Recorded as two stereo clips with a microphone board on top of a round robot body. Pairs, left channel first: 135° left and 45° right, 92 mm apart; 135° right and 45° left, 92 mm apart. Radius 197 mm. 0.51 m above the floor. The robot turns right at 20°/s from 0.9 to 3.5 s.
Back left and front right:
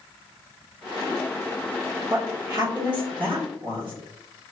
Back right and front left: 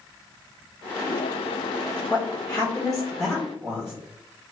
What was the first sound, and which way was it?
A woman speaking, 70° right.